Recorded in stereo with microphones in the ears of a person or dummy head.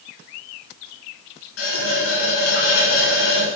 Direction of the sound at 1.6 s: 80° left.